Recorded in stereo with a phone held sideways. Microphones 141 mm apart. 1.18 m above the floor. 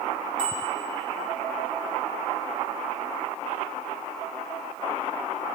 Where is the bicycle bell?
70° right (ahead or behind), 4.5 m.